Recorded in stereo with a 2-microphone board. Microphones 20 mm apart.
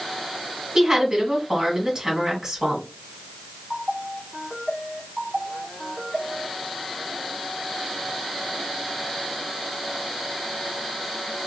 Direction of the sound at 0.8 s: 30° right (ahead or behind).